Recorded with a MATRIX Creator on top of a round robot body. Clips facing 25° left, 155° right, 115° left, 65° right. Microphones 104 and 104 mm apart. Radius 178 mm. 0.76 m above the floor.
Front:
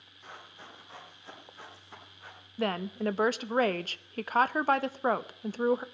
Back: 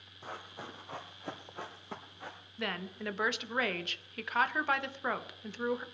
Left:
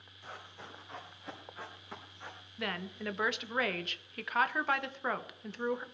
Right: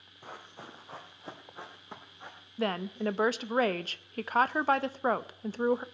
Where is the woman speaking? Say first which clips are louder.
Front 8 dB, right 8 dB; 20° right, 0.7 m.